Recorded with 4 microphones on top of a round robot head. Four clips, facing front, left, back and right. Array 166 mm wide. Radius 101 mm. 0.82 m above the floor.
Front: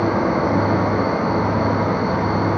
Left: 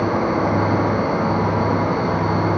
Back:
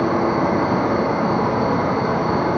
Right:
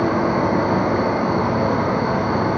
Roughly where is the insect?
Behind.